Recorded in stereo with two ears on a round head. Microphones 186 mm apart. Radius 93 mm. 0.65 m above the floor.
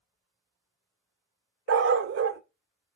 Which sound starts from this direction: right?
A dog barking, at 1.7 s.